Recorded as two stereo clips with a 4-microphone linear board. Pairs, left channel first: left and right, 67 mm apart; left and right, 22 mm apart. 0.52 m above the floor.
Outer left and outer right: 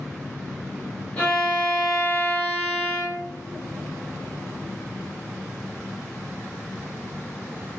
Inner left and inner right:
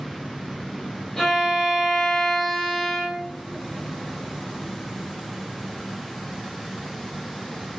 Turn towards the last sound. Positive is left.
turn(degrees=20)  # may be behind; listen again after turning